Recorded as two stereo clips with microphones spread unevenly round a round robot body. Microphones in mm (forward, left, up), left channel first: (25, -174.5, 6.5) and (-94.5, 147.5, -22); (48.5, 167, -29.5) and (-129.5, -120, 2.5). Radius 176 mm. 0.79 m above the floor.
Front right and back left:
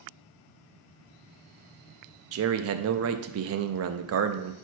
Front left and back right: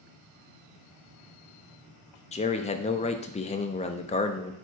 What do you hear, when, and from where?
2.3 s a man speaking: 115° left, 0.5 m